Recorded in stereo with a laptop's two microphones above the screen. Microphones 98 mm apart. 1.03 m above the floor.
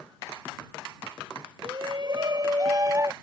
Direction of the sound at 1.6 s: 60° right (ahead or behind).